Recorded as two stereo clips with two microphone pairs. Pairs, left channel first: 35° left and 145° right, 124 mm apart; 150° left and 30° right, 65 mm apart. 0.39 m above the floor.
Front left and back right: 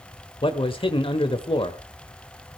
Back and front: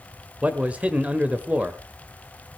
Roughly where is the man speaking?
Ahead left.